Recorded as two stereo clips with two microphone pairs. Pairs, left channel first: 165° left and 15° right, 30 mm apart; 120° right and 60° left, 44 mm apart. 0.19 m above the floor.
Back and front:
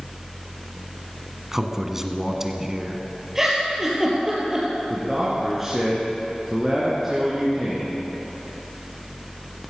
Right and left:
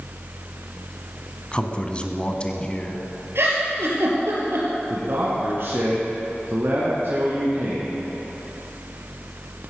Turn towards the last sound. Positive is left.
turn(degrees=65)